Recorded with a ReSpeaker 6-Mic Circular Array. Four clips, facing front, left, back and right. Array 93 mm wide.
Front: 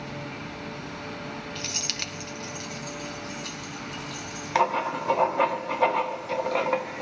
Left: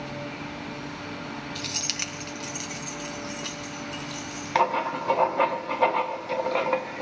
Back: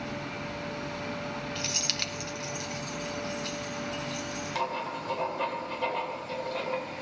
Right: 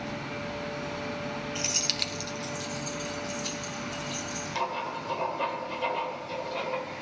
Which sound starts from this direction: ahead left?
Writing, at 4.5 s.